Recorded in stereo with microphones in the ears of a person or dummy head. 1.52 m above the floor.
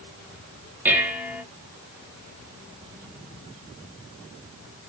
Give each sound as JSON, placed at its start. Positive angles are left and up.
{"t": 0.8, "sound": "dishes clattering", "side_deg": -10, "distance_m": 0.6}